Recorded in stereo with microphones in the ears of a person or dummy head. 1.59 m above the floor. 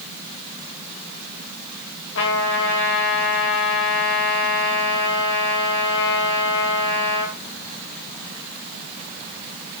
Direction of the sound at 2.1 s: 70° left (ahead or behind).